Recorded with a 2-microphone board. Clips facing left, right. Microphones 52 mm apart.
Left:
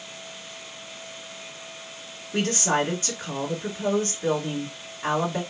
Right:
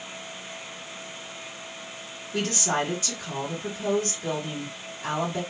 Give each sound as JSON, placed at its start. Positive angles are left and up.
{"t": 2.3, "sound": "a woman speaking", "side_deg": 30, "distance_m": 1.1}